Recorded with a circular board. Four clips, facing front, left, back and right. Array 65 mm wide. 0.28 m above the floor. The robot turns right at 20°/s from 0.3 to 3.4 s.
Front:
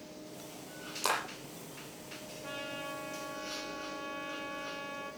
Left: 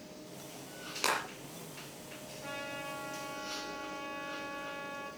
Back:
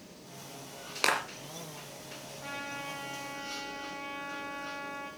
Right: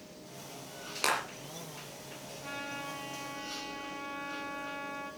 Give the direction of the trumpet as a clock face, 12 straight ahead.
6 o'clock.